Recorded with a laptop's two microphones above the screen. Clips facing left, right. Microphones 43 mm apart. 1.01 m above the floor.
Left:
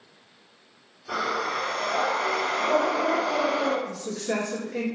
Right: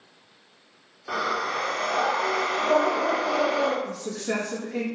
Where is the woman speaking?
70° right (ahead or behind), 0.7 m.